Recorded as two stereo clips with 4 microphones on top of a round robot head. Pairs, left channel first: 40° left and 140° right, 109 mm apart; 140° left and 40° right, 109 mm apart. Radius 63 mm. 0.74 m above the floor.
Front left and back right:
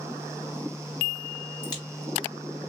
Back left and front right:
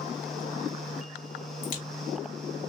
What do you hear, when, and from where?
1.6 s a crack: 100° left, 2.5 m